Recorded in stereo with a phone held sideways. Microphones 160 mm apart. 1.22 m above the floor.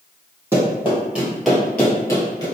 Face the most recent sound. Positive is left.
turn(degrees=25)  # may be behind; listen again after turning